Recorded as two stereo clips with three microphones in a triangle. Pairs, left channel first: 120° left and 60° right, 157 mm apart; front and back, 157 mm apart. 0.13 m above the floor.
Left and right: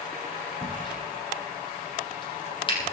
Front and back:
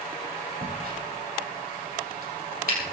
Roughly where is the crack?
Behind.